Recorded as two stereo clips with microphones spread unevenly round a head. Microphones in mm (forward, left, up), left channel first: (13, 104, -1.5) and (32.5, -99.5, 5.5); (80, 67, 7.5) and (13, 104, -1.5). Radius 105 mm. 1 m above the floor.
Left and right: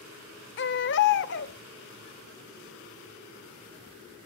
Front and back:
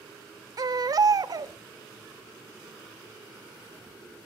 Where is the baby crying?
120° left, 1.0 m.